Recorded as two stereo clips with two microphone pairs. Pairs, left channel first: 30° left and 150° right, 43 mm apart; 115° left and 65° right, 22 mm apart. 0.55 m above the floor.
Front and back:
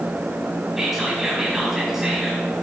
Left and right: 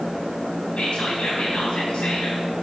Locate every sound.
0.8 s whispering: 125° left, 3.5 m